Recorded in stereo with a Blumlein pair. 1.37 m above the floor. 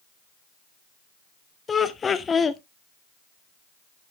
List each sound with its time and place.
1.7 s laughter: 15° left, 0.7 m